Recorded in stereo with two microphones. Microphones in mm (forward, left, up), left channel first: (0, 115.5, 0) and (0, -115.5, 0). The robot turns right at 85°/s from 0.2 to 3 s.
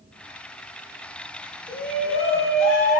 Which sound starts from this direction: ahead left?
A shout, at 1.7 s.